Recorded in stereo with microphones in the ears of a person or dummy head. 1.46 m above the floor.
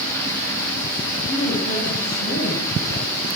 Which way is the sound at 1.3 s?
75° left (ahead or behind).